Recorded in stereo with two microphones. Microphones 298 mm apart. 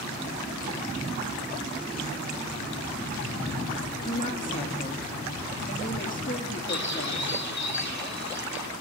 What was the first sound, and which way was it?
A woman speaking, 25° left (ahead or behind).